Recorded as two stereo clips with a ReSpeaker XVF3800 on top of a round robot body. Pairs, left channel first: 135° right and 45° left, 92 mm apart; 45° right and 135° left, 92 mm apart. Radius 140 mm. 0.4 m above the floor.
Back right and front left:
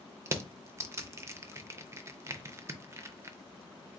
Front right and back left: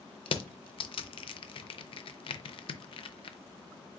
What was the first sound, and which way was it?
Crushing, 15° right.